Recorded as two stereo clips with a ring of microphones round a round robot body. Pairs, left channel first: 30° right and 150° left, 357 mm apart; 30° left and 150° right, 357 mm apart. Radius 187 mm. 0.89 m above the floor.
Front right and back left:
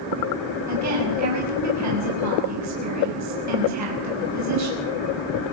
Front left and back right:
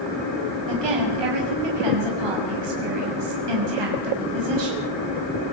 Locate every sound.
0.7 s a woman speaking: 165° right, 6 m